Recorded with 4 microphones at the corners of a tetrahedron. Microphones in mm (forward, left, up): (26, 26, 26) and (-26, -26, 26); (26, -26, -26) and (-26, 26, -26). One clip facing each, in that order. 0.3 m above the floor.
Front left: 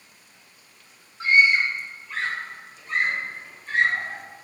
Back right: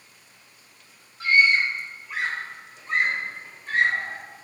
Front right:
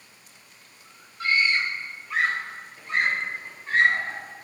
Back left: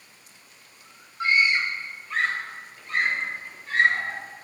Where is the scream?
85° left, 1.1 m; by 4.2 s 95° right, 2 m.